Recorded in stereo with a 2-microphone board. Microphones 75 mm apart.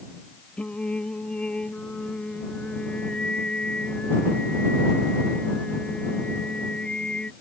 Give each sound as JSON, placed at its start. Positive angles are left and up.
{"t": 0.6, "sound": "singing", "side_deg": 15}